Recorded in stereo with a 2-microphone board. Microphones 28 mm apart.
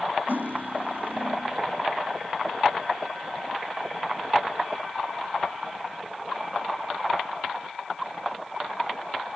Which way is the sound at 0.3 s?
75° right (ahead or behind).